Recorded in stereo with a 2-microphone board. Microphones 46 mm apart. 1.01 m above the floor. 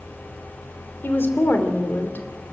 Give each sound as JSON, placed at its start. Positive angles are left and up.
{"t": 1.0, "sound": "a woman speaking", "side_deg": 55, "distance_m": 3.0}